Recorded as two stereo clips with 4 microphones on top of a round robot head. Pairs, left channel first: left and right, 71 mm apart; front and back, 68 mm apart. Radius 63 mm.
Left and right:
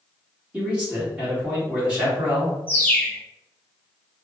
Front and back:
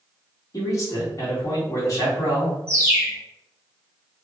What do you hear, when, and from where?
0.5 s a man speaking: 20° right, 1.8 m
2.7 s a bird: 145° left, 1.8 m